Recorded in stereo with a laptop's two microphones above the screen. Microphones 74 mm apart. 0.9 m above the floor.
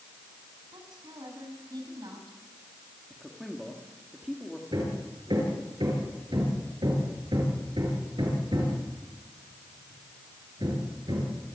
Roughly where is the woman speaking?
Right.